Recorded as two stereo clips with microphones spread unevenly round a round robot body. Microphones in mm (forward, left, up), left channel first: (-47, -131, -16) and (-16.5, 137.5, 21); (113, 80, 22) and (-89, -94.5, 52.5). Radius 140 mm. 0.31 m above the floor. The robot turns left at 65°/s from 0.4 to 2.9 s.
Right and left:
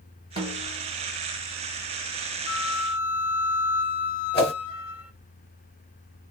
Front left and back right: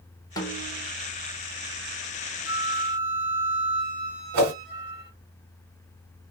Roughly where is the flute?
Right.